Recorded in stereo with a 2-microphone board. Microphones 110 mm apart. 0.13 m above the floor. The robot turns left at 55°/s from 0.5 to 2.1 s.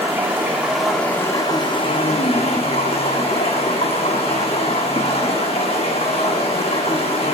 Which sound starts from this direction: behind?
Running water, at 0.0 s.